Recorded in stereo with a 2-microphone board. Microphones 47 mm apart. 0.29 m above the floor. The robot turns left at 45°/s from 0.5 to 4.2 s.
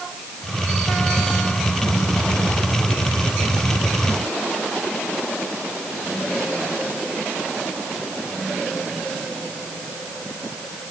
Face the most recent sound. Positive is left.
No sound to turn to.